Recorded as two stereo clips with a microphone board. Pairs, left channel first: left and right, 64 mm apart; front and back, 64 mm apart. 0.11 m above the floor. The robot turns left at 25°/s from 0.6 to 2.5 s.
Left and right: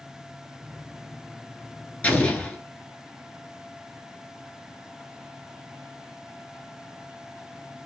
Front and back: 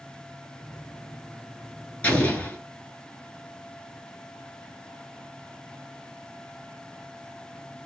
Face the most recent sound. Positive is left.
turn(degrees=35)